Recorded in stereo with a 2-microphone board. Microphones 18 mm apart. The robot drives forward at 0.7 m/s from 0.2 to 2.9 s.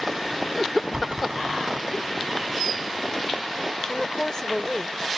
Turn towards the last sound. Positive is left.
turn(degrees=35)  # may be behind; listen again after turning